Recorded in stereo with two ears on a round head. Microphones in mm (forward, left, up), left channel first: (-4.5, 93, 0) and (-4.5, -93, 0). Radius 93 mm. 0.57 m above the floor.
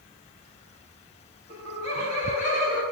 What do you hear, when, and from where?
1.5 s laughter: 30° left (ahead or behind), 3.5 m; by 2.8 s 40° left (ahead or behind), 4 m